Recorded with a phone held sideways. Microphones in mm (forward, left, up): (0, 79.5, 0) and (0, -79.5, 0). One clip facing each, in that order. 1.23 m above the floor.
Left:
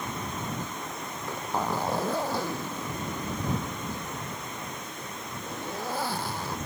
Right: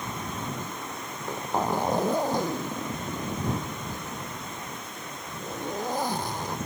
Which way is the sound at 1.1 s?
15° right (ahead or behind).